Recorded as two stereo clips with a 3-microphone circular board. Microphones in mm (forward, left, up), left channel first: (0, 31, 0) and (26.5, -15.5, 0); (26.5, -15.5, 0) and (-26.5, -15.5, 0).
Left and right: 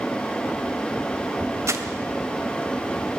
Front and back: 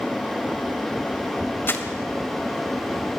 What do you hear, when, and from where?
1.7 s crumpling: 45° right, 1.8 m